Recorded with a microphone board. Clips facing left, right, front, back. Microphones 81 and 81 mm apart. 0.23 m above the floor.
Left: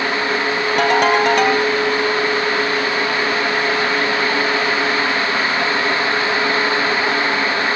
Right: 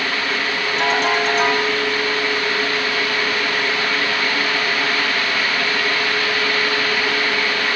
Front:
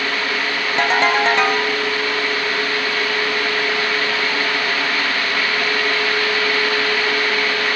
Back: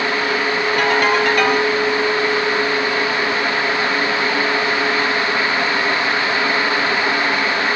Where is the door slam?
I don't hear a door slam.